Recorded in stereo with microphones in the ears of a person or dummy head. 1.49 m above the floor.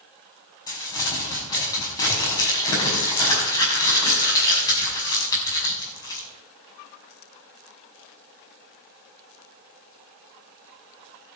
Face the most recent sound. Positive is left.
turn(degrees=25)  # may be behind; listen again after turning